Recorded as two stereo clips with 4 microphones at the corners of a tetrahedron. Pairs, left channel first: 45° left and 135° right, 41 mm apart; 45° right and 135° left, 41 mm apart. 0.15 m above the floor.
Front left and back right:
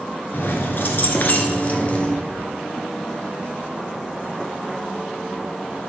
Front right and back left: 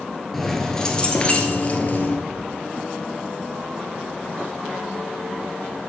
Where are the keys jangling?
40° left, 1.4 m; by 2.2 s 15° right, 1.6 m.